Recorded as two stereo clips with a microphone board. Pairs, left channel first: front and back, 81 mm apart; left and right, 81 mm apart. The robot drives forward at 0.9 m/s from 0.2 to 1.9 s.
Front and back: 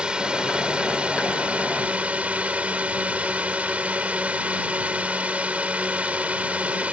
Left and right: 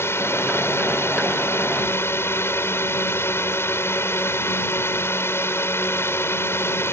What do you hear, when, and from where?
0.0 s a drone: 110° left; by 6.9 s 120° left